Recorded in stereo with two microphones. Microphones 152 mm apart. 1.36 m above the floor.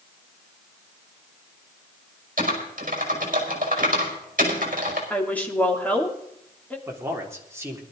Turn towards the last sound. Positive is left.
turn(degrees=-15)  # may be behind; listen again after turning